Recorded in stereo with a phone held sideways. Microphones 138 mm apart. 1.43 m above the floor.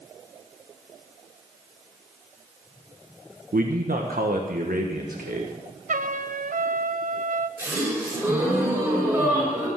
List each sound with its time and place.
3.5 s a man speaking: 80° right, 1.4 m
5.9 s a trumpet: 65° right (ahead or behind), 0.7 m
7.6 s a gasp: 15° right (ahead or behind), 6.5 m